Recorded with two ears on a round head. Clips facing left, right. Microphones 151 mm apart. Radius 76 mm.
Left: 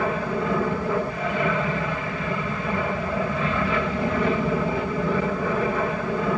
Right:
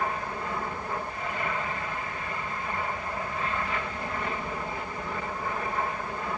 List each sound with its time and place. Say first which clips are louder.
0.0 s an aircraft: left 7 dB; 65° left (ahead or behind)